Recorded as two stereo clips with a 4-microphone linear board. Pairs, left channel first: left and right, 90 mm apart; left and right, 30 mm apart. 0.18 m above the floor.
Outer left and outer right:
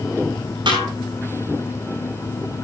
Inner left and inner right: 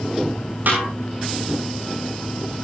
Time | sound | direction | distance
0.7 | a snare drum | 65° right (ahead or behind) | 8 m